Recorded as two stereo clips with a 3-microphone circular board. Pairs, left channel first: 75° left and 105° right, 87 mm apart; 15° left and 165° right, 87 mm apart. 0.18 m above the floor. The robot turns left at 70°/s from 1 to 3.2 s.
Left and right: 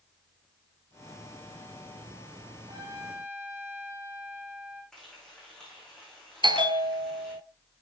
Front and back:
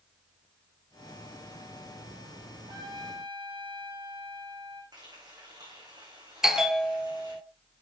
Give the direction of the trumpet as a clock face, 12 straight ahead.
4 o'clock.